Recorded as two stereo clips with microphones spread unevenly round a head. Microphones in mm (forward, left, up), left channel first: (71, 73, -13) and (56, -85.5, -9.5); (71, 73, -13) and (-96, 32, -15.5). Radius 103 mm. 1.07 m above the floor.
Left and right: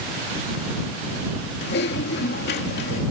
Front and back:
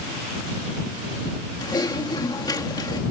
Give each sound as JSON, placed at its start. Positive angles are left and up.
{"t": 1.6, "sound": "typing on a keyboard", "azimuth_deg": 80}